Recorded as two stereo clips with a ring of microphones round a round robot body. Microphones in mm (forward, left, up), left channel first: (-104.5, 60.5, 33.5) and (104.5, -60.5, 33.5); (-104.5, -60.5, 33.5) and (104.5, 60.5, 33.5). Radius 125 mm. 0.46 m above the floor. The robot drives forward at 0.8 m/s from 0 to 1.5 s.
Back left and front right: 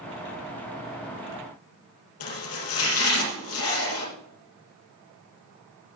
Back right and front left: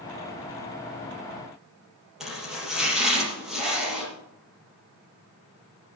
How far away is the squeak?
No squeak in this recording.